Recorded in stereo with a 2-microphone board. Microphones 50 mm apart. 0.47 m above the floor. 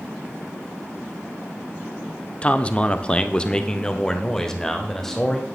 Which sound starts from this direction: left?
A man speaking, at 2.4 s.